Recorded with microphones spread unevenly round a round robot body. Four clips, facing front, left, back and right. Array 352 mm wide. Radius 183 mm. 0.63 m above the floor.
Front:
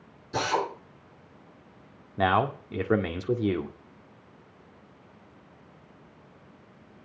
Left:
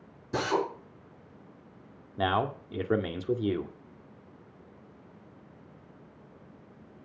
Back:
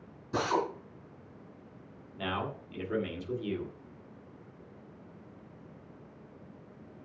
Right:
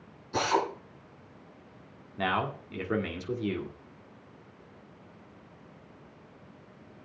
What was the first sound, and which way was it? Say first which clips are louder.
A drill: right 1 dB, front 2 dB; 120° left.